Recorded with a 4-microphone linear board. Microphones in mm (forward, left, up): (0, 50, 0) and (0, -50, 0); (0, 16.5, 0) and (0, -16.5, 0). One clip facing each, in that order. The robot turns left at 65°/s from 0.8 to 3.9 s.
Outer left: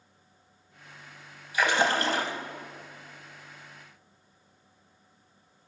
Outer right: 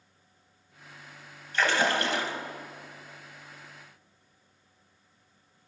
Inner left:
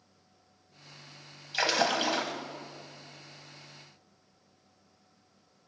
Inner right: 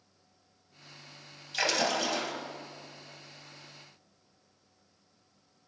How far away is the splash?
About 2.5 m.